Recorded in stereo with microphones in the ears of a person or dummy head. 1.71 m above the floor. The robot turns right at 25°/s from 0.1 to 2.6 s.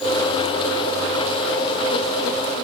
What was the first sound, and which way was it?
Only background noise.